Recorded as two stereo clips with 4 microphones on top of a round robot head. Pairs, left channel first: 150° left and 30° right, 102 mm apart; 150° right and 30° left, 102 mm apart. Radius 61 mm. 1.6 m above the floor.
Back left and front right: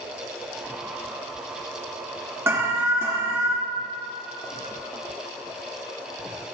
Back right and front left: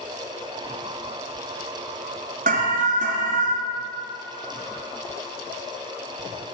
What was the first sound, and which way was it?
An alarm, 40° left.